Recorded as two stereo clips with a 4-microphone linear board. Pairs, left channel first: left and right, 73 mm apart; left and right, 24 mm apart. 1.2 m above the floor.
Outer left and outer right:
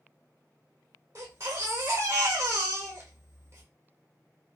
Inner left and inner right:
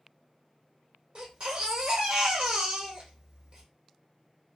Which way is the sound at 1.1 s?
40° right (ahead or behind).